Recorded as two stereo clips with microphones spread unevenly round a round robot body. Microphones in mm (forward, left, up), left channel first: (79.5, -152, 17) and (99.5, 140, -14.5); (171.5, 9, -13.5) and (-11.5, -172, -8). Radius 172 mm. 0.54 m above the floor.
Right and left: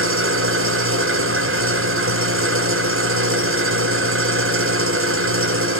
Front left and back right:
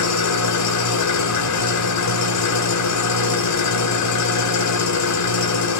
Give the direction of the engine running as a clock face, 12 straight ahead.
11 o'clock.